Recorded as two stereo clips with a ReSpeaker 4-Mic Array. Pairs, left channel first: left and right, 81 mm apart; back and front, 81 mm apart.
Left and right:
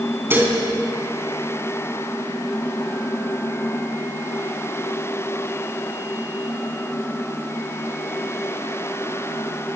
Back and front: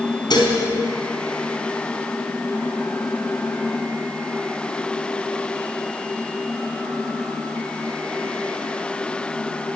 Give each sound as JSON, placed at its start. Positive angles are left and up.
{"t": 0.3, "sound": "dishes clattering", "azimuth_deg": -155, "distance_m": 4.0}